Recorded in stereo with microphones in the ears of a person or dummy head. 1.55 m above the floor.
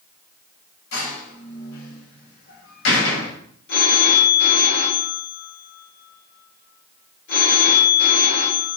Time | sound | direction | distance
0.9 | a door slam | 75° left (ahead or behind) | 7 m
3.7 | a phone ringing | 65° left (ahead or behind) | 4 m